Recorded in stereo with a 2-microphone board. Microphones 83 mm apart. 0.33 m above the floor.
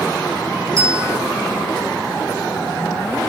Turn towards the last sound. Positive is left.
turn(degrees=-35)  # may be behind; listen again after turning